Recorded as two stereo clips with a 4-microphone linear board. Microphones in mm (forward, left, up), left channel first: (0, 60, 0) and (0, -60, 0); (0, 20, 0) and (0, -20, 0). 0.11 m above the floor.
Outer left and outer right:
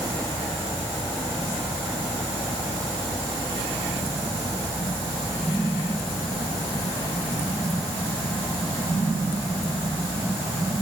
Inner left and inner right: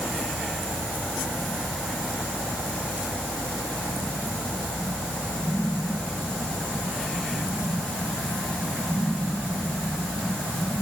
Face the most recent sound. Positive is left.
No sound to turn to.